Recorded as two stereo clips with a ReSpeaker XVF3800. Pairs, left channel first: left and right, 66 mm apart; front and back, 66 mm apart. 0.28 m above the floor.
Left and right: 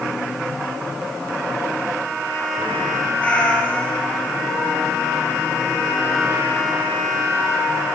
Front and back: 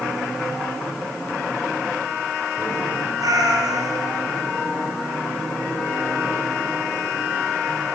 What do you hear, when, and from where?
3.2 s a cat meowing: 160° left, 3 m